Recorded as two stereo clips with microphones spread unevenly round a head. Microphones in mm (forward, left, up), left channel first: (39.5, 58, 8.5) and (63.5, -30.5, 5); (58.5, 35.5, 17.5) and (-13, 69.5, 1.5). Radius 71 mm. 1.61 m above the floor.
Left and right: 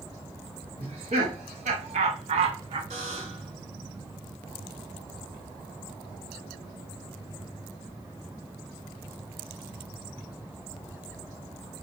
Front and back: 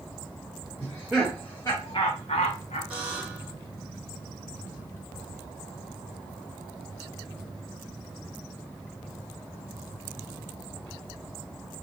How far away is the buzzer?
About 2.5 m.